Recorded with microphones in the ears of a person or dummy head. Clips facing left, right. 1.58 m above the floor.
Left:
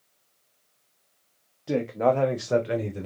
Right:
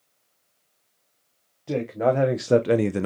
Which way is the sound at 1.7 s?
5° left (ahead or behind).